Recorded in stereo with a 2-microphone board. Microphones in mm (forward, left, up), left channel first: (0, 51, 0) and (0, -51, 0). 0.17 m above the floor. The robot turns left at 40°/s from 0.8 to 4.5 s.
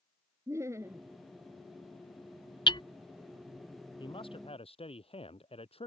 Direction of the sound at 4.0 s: 50° left (ahead or behind).